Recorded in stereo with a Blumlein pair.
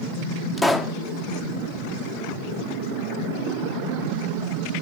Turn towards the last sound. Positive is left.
turn(degrees=0)